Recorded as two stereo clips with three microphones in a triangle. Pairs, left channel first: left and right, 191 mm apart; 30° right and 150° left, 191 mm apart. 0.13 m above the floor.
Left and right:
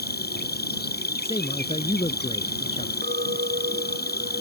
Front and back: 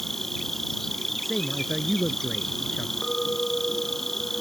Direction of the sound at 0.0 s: 60° left.